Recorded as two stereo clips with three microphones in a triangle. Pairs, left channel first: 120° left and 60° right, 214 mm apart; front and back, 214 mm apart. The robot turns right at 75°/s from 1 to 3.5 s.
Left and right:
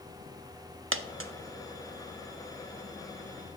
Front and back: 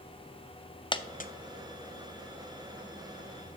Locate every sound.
0.9 s a dropped coin: 70° right, 0.5 m; by 1.3 s 45° right, 0.5 m